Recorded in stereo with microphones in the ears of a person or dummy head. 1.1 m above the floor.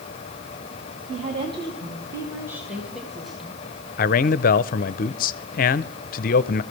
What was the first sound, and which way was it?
A woman speaking, 35° right (ahead or behind).